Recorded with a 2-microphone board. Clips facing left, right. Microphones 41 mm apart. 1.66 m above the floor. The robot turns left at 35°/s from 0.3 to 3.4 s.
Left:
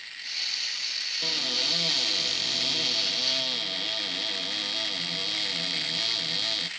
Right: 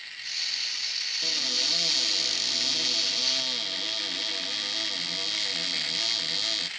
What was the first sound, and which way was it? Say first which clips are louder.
A cupboard door: left 1 dB; 25° left (ahead or behind).